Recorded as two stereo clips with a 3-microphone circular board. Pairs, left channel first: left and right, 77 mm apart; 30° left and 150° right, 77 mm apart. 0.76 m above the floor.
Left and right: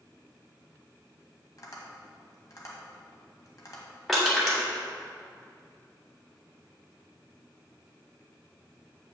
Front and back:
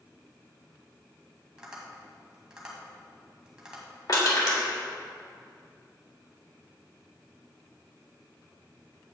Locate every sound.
1.6 s tapping: 130° left, 1.8 m
4.1 s crushing: straight ahead, 2.5 m